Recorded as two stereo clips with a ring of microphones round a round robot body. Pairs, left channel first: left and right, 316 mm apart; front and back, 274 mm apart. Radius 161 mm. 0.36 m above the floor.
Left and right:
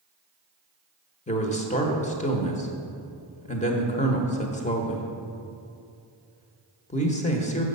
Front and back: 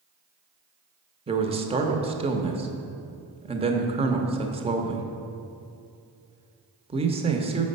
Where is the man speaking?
135° left, 1.0 m.